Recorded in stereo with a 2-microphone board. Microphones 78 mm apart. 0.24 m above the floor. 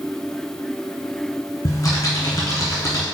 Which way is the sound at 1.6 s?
50° left (ahead or behind).